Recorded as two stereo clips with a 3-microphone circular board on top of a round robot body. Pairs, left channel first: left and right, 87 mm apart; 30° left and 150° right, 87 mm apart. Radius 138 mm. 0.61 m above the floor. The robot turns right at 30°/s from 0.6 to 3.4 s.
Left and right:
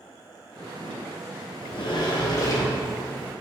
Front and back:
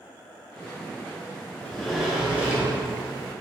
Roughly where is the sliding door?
Left.